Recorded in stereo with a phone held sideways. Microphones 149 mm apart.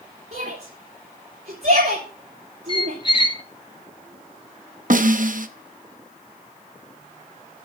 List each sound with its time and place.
0.3 s a shout: 75° right (ahead or behind), 3 m
2.7 s a squeak: 35° left (ahead or behind), 0.7 m
4.9 s a snare drum: 65° right (ahead or behind), 0.8 m